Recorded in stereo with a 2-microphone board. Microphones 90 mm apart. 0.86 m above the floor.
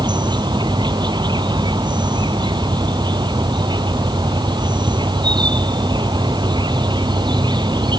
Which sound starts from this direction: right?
An insect, at 0.0 s.